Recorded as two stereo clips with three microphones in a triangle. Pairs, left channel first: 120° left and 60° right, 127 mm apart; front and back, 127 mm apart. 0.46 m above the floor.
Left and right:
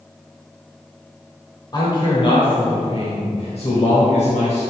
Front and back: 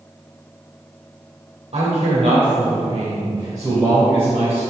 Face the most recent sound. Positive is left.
turn(degrees=110)